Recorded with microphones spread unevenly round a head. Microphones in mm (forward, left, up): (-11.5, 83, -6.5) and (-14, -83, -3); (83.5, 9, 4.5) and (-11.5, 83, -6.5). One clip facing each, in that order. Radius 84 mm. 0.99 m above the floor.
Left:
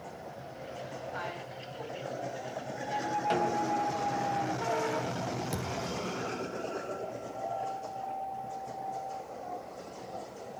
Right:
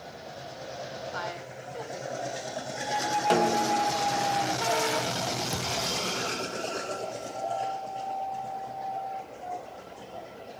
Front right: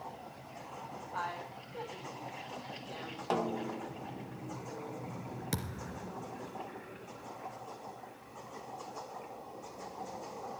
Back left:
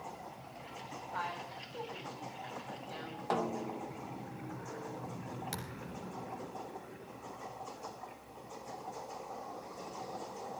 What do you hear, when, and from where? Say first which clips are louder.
1.1 s a woman speaking: right 3 dB, front right 1 dB; 120° right, 7 m
3.3 s a snare drum: right 6 dB, front right 1 dB; 125° right, 0.7 m
5.5 s a thud: right 2 dB, front right 3 dB; straight ahead, 3 m